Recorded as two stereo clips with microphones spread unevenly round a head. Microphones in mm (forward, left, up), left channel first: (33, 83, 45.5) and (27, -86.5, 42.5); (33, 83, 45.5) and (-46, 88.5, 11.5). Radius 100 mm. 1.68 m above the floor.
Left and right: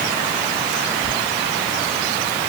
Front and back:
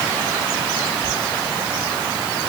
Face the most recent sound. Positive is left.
No sound to turn to.